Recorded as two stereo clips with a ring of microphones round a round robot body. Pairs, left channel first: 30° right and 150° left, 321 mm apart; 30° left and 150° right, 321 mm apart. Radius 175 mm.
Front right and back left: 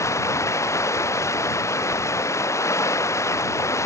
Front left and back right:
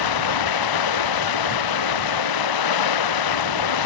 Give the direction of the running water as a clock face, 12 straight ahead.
10 o'clock.